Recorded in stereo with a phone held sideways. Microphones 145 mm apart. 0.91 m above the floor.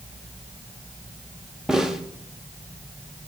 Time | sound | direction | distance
1.7 | a snare drum | 5° right (ahead or behind) | 1.2 m